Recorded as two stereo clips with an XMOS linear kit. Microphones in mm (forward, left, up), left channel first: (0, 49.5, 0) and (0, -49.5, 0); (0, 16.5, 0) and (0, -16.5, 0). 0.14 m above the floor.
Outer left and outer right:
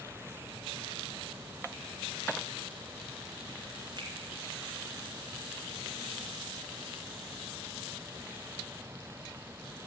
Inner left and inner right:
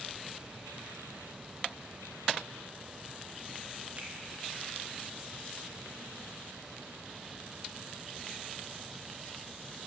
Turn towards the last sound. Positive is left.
turn(degrees=-45)  # may be behind; listen again after turning